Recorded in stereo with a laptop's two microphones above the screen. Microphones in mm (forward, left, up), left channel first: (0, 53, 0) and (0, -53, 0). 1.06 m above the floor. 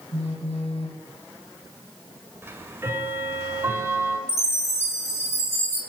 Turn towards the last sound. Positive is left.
turn(degrees=90)